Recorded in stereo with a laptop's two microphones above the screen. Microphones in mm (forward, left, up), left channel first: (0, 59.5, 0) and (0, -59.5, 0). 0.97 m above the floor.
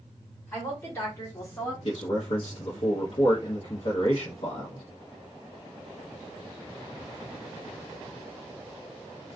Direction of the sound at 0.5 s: 20° left (ahead or behind).